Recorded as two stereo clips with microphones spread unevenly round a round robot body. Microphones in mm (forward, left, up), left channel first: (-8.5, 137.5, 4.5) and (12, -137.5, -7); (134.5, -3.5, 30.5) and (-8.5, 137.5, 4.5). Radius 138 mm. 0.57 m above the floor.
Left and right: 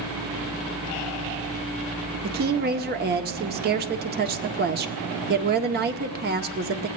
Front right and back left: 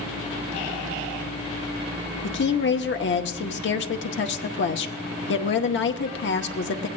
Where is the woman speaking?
45° right, 0.8 m.